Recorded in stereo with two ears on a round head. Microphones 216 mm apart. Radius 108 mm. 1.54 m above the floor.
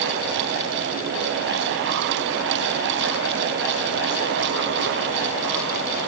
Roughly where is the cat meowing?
No cat meowing in this recording.